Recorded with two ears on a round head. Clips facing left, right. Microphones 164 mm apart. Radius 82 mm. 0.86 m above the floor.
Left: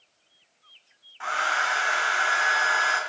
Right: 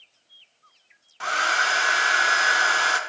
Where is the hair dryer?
50° right (ahead or behind), 0.6 m.